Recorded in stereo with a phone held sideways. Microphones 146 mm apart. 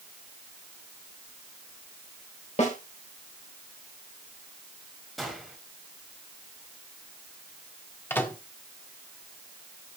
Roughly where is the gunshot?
Centre.